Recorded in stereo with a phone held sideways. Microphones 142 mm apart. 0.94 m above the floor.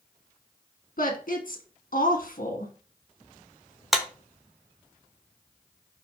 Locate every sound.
1.0 s a woman speaking: 65° left (ahead or behind), 1.2 m
3.9 s a clap: centre (ahead or behind), 0.7 m